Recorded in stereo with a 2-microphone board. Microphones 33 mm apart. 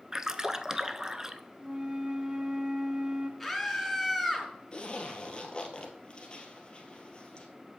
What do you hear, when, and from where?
0.1 s a splash: 20° right (ahead or behind), 0.5 m
1.6 s a flute: 30° right (ahead or behind), 0.6 m
3.4 s a scream: centre (ahead or behind), 2.5 m
4.7 s a zipper: 30° left (ahead or behind), 1.6 m